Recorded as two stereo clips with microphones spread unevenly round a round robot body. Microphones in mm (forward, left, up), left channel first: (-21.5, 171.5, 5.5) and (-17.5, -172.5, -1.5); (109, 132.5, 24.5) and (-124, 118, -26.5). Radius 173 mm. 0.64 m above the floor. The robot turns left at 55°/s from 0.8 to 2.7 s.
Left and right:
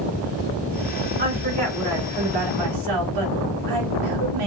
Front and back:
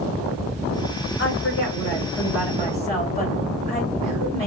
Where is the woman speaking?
25° right, 2.5 m; by 4.5 s 110° right, 2.5 m.